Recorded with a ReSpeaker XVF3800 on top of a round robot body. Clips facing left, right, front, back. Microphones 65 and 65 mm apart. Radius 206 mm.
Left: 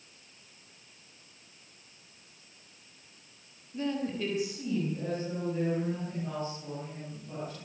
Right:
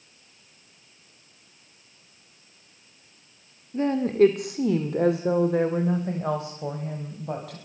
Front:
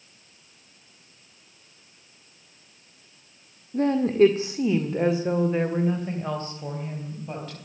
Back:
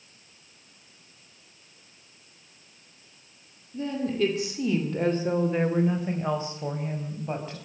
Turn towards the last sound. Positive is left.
turn(degrees=-110)